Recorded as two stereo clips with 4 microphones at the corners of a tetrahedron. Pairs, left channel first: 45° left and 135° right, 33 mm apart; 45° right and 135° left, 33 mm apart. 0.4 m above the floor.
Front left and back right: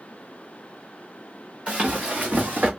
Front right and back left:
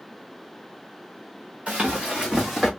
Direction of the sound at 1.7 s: Straight behind.